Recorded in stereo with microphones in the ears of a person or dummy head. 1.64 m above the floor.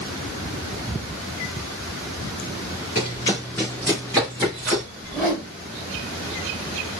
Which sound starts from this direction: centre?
A whoosh, at 5.0 s.